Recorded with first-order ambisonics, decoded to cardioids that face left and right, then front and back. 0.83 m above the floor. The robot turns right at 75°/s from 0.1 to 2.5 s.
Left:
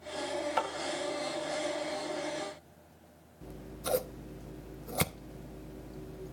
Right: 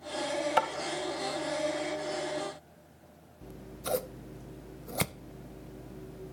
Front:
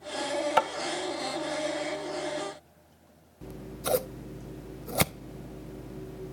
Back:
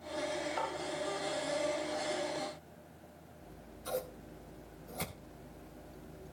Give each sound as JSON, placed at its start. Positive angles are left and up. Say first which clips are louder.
{"t": 0.6, "sound": "tapping", "louder": "right 5 dB, front 14 dB", "azimuth_deg": -20, "distance_m": 1.1}
{"t": 3.4, "sound": "scissors", "louder": "even, front 12 dB", "azimuth_deg": 0, "distance_m": 0.7}